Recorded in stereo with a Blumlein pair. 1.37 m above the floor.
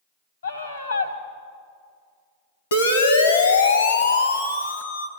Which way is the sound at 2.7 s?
65° left.